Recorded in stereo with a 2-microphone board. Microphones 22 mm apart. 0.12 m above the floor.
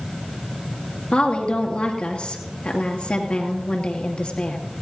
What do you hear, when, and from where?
1.1 s a woman speaking: 50° left (ahead or behind), 2.5 m